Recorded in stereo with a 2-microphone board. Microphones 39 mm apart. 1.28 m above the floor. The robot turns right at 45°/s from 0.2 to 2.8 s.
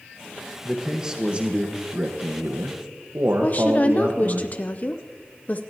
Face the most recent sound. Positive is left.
turn(degrees=40)  # may be behind; listen again after turning